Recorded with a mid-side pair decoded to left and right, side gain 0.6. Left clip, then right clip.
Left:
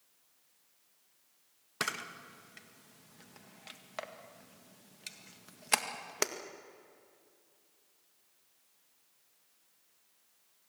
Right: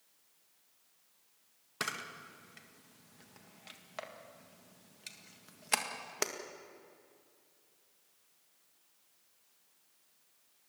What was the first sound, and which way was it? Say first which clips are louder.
A camera shutter: left 2 dB; 15° left.